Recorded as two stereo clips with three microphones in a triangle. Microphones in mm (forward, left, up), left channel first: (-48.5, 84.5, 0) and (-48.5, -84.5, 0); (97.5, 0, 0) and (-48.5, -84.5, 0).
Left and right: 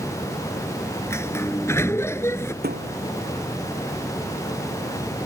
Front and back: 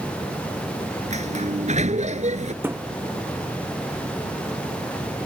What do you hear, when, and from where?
1.1 s a sliding door: 165° left
2.6 s a thud: 75° right